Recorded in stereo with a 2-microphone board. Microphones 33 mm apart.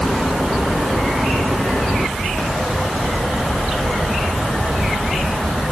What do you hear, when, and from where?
Only background noise.